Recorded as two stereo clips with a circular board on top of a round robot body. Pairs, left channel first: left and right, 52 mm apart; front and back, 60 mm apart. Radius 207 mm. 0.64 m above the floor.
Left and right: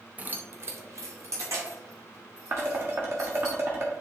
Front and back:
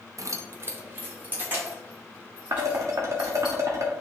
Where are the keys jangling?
155° right, 0.7 m; by 3.5 s 110° right, 4.5 m.